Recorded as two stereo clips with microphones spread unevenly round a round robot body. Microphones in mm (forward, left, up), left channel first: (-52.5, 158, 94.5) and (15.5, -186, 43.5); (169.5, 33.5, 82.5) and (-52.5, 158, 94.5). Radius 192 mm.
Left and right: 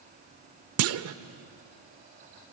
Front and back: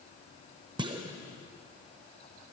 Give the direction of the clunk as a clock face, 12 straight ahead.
4 o'clock.